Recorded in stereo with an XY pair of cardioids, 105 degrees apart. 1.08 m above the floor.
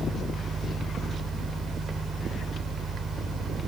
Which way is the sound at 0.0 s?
55° right.